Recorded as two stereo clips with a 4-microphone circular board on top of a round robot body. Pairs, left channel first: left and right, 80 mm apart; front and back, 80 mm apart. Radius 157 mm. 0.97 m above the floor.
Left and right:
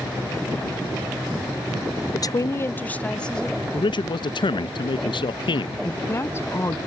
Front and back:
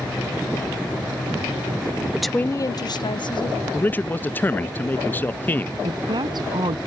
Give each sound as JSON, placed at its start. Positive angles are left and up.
{"t": 2.1, "sound": "a woman speaking", "azimuth_deg": 110}
{"t": 3.7, "sound": "a man speaking", "azimuth_deg": 70}
{"t": 5.8, "sound": "a woman speaking", "azimuth_deg": 150}